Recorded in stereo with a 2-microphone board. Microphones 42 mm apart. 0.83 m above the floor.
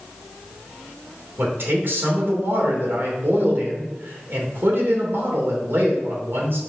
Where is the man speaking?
55° right (ahead or behind), 2.5 m.